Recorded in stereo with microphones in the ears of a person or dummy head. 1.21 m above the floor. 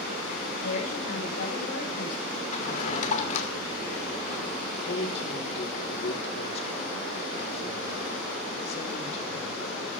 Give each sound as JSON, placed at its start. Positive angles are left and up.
{"t": 0.6, "sound": "a woman speaking", "side_deg": 70, "distance_m": 5.5}
{"t": 2.5, "sound": "a drawer", "side_deg": 40, "distance_m": 2.5}
{"t": 4.8, "sound": "a man speaking", "side_deg": 40, "distance_m": 4.0}